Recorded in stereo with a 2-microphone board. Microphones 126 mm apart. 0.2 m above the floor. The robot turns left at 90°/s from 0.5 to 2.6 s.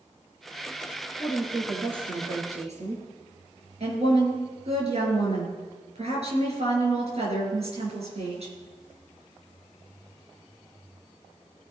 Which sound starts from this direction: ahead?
A woman speaking, at 1.2 s.